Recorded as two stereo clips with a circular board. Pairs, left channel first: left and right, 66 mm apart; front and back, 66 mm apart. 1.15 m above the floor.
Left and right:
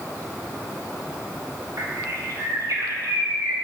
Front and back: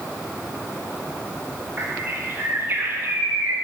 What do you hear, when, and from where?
1.8 s a bird: 125° right, 1.4 m